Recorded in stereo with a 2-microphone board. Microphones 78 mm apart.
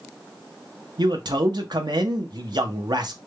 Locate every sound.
1.0 s a man speaking: 65° right (ahead or behind), 0.6 m